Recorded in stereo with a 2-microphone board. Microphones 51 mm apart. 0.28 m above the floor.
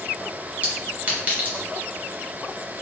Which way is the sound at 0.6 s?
30° right (ahead or behind).